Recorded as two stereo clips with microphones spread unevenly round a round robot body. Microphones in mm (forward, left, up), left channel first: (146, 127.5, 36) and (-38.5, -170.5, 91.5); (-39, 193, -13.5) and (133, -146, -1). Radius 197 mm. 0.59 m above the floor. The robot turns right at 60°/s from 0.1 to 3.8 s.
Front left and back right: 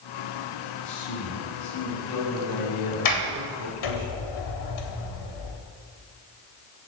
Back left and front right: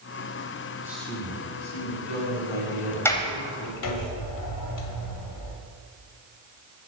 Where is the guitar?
No guitar in this recording.